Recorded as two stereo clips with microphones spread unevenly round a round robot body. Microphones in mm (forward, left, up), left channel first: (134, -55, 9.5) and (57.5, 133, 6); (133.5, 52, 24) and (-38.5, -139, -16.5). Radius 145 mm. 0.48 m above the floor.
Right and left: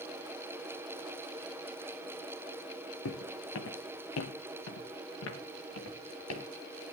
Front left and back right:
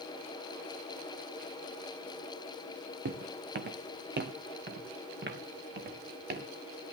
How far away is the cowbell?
I don't hear a cowbell.